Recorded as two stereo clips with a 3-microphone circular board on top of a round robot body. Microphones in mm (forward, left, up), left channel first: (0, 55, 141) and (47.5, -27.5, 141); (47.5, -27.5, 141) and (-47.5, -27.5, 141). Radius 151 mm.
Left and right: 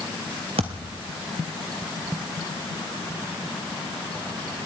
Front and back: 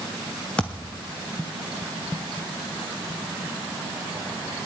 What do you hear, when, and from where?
0.6 s a thud: 75° right, 0.6 m